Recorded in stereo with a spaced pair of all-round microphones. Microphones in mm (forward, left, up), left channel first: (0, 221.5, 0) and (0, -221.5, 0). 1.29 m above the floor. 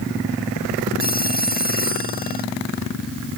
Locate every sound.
1.0 s a phone ringing: 20° left (ahead or behind)